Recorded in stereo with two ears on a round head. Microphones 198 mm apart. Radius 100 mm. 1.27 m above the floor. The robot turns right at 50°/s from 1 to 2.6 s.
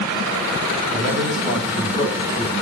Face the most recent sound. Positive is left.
turn(degrees=55)